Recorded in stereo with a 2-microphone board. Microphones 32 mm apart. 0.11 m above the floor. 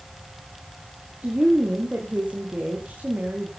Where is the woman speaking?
35° right (ahead or behind), 5.5 m.